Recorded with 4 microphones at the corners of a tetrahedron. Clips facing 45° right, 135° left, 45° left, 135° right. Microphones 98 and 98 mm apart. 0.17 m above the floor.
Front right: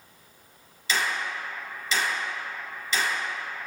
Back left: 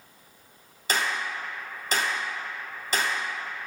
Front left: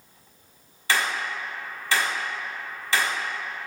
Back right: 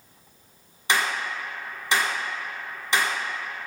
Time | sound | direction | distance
0.9 | a clap | 160° left | 1.7 m